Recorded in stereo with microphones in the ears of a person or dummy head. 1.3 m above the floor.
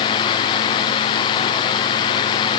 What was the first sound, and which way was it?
Only background noise.